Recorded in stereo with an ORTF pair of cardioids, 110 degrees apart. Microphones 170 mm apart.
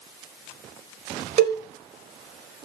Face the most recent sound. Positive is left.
turn(degrees=-35)